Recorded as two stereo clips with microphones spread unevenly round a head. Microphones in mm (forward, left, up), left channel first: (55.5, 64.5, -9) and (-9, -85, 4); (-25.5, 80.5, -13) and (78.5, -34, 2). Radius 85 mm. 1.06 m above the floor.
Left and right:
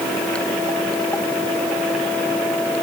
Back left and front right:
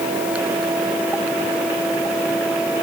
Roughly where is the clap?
I don't hear a clap.